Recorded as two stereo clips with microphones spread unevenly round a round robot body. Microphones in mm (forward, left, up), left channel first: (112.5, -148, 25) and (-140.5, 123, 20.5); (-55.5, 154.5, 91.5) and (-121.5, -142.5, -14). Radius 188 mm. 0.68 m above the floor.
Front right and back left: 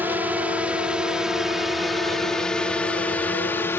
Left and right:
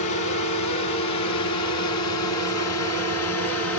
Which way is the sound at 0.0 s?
50° left.